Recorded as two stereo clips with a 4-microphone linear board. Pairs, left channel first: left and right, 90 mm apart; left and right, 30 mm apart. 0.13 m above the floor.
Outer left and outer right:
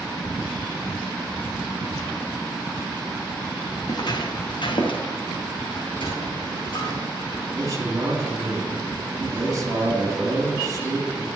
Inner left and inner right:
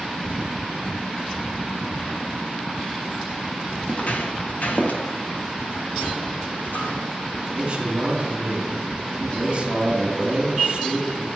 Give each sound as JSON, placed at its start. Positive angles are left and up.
{"t": 3.9, "sound": "footsteps", "side_deg": 50, "distance_m": 1.9}
{"t": 5.8, "sound": "a sliding door", "side_deg": 70, "distance_m": 4.0}
{"t": 7.5, "sound": "a man speaking", "side_deg": -40, "distance_m": 3.0}